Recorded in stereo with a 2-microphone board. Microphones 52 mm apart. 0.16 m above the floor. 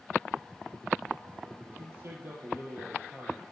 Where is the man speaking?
50° right (ahead or behind), 3.5 m.